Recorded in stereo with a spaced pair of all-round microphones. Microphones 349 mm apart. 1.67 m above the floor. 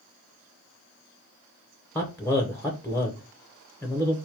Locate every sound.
1.9 s a man speaking: 5° left (ahead or behind), 0.7 m